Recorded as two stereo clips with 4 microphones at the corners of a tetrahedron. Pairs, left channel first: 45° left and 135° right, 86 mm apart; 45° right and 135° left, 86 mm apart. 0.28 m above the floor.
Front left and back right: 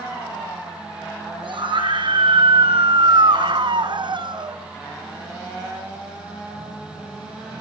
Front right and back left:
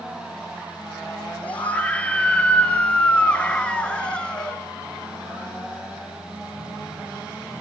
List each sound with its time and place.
1.4 s a scream: 120° right, 5 m; by 4.6 s 125° right, 2.5 m